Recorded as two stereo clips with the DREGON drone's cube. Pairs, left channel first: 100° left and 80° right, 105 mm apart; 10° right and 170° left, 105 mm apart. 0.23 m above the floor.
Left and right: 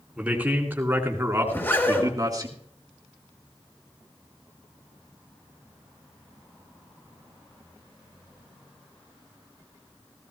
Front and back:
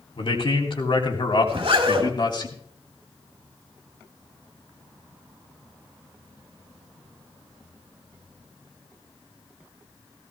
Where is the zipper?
165° left, 3 m.